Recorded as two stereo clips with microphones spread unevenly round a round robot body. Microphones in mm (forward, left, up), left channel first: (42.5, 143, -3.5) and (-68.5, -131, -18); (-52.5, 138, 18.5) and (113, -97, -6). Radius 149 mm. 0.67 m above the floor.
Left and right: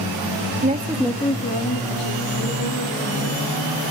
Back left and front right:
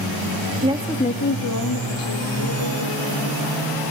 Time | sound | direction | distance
0.6 | a woman speaking | 85° right | 0.9 m